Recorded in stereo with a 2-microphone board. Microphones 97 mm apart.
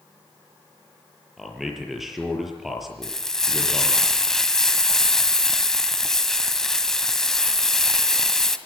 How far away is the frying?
About 1.7 m.